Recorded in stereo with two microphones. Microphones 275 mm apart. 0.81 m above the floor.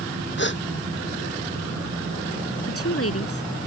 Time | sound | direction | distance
0.4 | a gasp | 40° left (ahead or behind) | ?
2.7 | a woman speaking | 55° left (ahead or behind) | ?